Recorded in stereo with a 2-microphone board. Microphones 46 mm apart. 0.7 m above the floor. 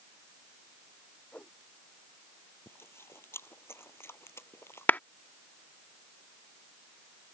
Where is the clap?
40° left (ahead or behind).